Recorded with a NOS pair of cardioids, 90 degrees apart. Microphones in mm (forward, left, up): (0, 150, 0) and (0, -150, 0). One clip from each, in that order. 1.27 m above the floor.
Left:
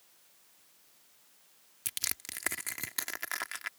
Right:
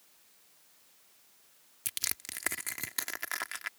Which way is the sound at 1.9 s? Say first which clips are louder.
Even; straight ahead.